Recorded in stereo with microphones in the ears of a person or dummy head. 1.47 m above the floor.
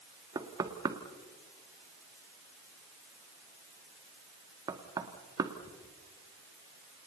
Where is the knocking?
25° right (ahead or behind), 1.9 m.